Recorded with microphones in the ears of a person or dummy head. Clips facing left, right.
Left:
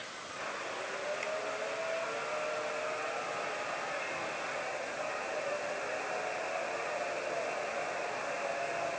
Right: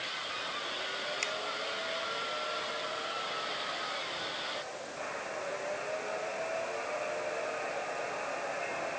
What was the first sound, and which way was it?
A finger snap, 70° right (ahead or behind).